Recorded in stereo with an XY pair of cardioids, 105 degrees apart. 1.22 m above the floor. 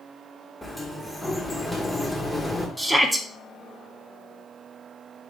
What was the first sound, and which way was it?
A sliding door, 5° left.